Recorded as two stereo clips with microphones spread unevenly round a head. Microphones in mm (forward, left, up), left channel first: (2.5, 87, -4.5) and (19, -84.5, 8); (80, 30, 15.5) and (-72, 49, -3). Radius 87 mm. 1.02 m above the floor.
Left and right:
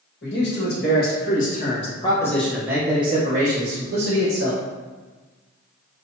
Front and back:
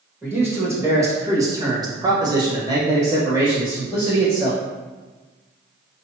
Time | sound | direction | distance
0.2 | a man speaking | 100° left | 1.8 m